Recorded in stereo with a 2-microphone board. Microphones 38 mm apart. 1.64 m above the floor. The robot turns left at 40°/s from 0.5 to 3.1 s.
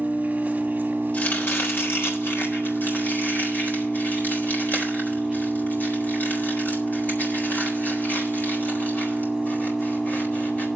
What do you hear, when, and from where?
0.0 s an engine running: 65° right, 2 m; by 10.8 s 170° right, 2 m
1.1 s chopping: 45° left (ahead or behind), 4 m; by 10.7 s 55° left (ahead or behind), 4 m